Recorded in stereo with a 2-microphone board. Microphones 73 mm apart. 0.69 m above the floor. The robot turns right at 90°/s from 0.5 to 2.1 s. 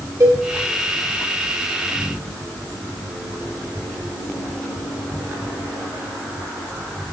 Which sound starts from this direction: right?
A cowbell, at 0.2 s.